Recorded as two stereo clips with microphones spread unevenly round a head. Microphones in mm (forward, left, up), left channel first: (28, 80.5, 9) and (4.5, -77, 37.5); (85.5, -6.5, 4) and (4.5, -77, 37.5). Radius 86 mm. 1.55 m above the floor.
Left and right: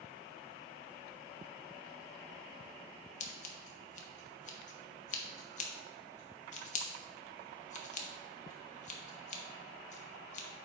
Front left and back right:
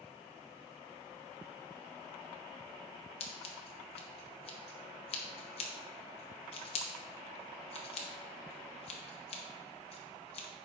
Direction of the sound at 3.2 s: 60° left.